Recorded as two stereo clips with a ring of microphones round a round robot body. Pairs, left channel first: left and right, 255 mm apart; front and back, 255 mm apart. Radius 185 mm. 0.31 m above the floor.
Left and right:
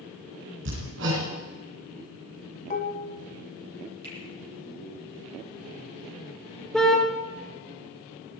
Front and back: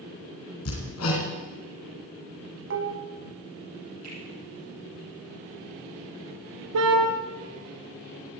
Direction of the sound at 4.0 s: 135° right.